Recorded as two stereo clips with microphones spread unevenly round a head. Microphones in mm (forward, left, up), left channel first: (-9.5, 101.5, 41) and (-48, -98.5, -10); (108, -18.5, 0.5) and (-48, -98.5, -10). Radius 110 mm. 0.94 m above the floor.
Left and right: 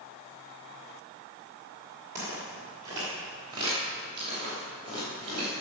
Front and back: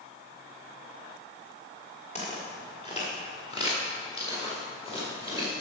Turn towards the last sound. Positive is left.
turn(degrees=-35)